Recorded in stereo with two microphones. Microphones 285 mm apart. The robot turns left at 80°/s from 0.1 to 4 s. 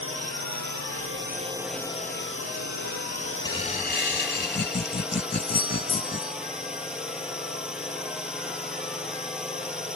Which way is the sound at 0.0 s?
50° right.